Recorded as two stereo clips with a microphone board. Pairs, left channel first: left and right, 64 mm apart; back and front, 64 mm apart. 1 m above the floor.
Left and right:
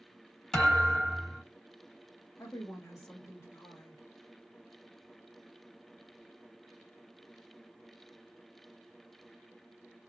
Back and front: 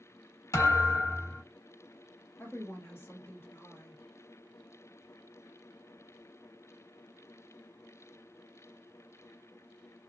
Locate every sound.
0.5 s a thud: 170° left, 1.4 m
2.4 s a woman speaking: 130° left, 1.2 m